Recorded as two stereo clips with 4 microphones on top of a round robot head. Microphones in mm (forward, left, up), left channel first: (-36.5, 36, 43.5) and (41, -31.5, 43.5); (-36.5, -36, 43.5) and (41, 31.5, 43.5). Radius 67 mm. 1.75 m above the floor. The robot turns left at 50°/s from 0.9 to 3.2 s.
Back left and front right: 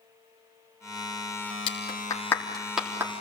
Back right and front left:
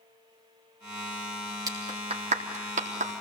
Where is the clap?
100° left, 3.5 m; by 3.2 s 25° left, 3.5 m.